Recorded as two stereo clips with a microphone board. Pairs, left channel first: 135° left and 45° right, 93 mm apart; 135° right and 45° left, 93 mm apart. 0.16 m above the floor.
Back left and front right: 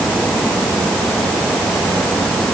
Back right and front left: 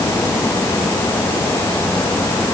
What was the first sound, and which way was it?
Only background noise.